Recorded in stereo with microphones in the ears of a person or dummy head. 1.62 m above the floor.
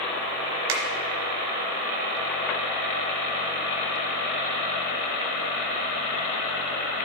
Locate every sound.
0.7 s a finger snap: 75° right (ahead or behind), 1.0 m